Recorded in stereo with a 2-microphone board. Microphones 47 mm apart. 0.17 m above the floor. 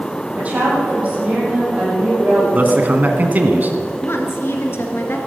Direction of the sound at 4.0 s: 55° left (ahead or behind).